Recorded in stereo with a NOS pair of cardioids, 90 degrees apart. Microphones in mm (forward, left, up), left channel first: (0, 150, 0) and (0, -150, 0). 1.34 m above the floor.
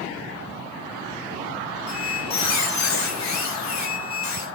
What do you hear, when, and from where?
1.9 s a squeak: 60° left, 4 m